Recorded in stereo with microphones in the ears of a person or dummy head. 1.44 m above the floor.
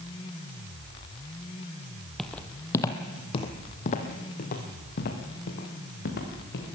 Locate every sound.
2.2 s footsteps: 5° left (ahead or behind), 1.6 m; by 6.7 s 65° left (ahead or behind), 4.5 m